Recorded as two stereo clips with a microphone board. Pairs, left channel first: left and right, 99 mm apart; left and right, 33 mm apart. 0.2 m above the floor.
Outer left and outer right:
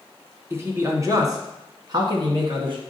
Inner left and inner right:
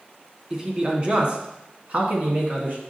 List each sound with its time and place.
0.5 s a man speaking: 25° right (ahead or behind), 1.6 m; by 2.8 s 55° right (ahead or behind), 2 m